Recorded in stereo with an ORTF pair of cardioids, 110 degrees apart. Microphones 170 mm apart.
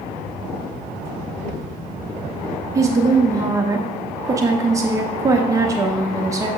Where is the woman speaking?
20° right, 0.8 m.